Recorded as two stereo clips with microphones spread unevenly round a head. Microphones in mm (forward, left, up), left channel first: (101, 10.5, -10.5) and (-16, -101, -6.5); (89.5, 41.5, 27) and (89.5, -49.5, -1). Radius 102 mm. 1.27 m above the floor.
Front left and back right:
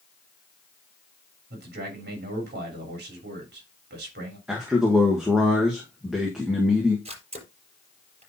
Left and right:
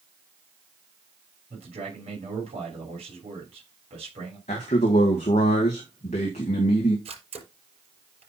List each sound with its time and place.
1.5 s a man speaking: 115° right, 3 m
4.5 s a man speaking: 135° left, 1.3 m
7.0 s a camera shutter: 85° right, 5 m